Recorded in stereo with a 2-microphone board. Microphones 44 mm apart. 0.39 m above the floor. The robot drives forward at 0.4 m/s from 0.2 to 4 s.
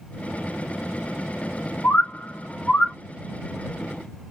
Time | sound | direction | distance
1.8 | a bird | 45° left (ahead or behind) | 0.8 m